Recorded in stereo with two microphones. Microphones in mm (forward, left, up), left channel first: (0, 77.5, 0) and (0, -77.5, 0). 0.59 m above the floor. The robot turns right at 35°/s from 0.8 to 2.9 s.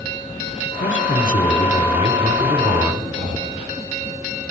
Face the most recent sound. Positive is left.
turn(degrees=-55)  # may be behind; listen again after turning